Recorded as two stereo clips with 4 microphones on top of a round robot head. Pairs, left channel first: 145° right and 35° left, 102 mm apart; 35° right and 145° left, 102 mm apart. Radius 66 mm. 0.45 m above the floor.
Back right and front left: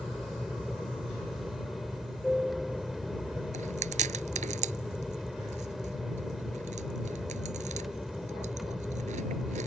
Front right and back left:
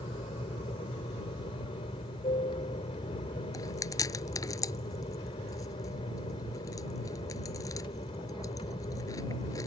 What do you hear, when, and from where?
0.0 s an aircraft: 50° right
3.5 s chewing: 25° left